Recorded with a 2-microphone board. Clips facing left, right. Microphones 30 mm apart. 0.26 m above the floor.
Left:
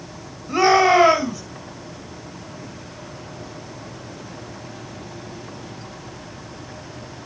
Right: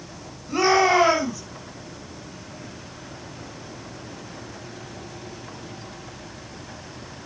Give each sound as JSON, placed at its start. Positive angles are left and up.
{"t": 0.5, "sound": "a shout", "side_deg": 15, "distance_m": 1.9}